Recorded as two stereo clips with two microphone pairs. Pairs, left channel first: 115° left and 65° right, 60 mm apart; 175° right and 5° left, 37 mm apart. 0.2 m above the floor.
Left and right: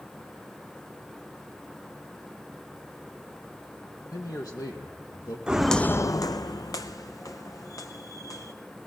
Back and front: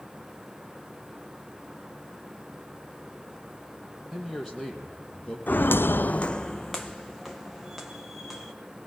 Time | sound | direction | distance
4.1 | a man speaking | 95° left | 6 m
5.5 | footsteps | 140° right | 0.7 m